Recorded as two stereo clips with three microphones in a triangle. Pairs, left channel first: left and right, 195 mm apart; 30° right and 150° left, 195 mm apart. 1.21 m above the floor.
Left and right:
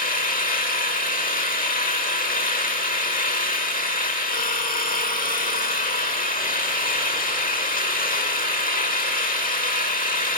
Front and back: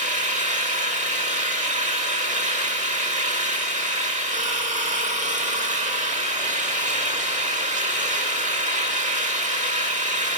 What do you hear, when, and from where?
0.0 s an engine running: 115° left, 1.3 m